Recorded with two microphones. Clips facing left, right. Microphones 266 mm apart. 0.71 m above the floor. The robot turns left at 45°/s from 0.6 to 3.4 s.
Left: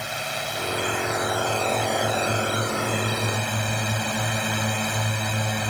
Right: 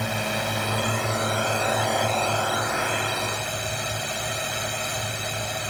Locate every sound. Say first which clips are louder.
0.0 s a drone: right 5 dB; 120° right; by 5.7 s 115° left